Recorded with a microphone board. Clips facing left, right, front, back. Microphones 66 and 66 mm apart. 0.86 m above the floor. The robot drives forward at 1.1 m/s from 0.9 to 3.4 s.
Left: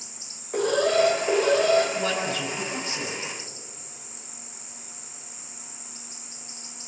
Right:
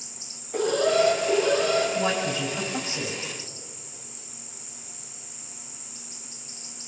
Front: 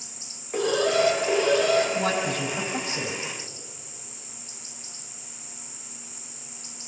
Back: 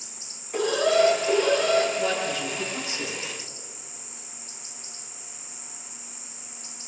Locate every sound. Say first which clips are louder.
0.5 s an alarm: even, back 1 dB; 70° left, 5 m; by 1.9 s 80° left, 5 m
1.9 s a man speaking: right 1 dB, front 1 dB; 20° right, 6.5 m; by 3.2 s 25° right, 5 m